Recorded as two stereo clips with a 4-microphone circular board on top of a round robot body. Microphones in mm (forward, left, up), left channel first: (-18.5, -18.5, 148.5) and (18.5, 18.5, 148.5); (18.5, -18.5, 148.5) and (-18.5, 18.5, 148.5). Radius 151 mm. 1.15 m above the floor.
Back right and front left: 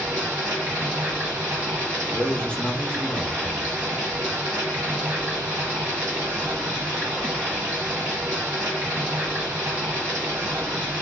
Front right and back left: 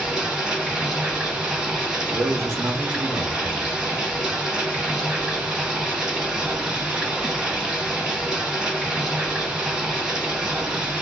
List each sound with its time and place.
0.0 s running water: 55° left, 1.7 m
2.1 s a man speaking: 155° left, 0.8 m